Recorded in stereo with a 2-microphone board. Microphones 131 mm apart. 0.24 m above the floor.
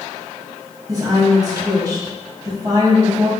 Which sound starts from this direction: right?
A woman speaking, at 0.9 s.